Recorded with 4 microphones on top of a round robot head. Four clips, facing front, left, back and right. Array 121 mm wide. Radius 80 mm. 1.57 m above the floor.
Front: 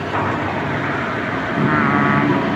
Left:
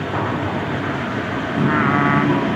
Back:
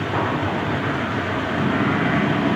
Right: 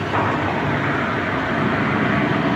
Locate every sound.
1.6 s singing: 40° left, 1.7 m